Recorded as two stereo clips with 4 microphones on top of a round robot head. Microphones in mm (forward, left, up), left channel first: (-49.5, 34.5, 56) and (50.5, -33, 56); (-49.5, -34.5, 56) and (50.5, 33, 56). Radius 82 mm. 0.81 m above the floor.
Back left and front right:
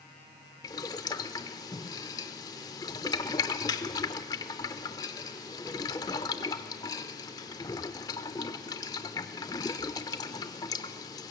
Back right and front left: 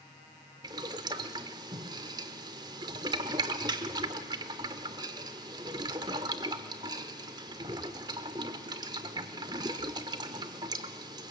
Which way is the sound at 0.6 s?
90° left.